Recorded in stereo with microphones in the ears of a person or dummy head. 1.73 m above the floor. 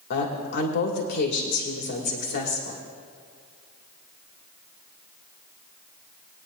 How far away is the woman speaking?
About 1.9 m.